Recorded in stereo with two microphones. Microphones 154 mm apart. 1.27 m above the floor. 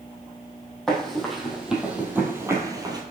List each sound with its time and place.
0.9 s running footsteps: 5° left (ahead or behind), 2.5 m; by 3.0 s 25° right (ahead or behind), 1.6 m